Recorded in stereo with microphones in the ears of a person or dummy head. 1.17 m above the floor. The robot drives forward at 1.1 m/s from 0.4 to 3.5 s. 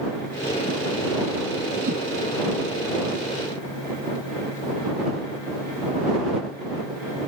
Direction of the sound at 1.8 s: 45° right (ahead or behind).